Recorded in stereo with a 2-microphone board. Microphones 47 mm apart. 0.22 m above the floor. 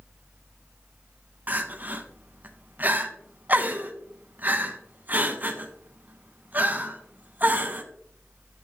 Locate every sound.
1.5 s crying: 40° right (ahead or behind), 1.0 m